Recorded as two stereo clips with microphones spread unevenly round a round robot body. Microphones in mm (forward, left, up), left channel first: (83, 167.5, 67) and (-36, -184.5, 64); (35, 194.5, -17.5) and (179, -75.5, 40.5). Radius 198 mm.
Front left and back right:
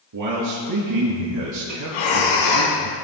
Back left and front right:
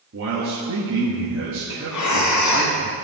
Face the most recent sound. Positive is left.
turn(degrees=85)